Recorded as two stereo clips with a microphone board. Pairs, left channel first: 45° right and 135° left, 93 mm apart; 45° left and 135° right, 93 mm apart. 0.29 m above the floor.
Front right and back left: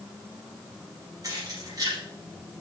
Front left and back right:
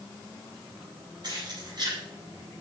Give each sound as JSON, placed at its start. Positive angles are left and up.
{"t": 1.2, "sound": "keys jangling", "azimuth_deg": -175, "distance_m": 6.5}